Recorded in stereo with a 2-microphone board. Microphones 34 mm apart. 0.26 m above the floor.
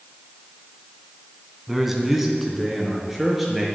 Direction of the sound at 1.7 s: 5° right (ahead or behind).